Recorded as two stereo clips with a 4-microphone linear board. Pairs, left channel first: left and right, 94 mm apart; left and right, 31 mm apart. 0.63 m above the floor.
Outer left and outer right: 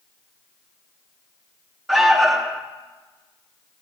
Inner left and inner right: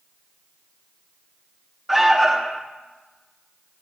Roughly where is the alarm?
Centre.